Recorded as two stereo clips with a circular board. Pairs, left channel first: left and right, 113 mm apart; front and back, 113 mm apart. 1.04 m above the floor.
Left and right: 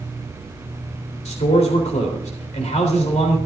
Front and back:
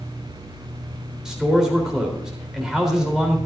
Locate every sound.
1.2 s a man speaking: 95° left, 3.5 m